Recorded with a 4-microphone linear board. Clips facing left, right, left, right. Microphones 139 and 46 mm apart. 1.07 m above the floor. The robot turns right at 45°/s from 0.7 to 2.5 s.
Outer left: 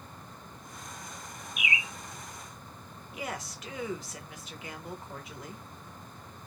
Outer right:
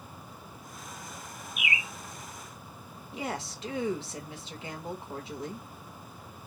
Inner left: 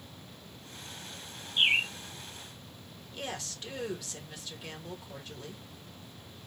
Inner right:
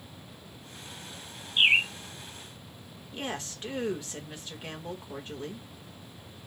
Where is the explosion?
No explosion in this recording.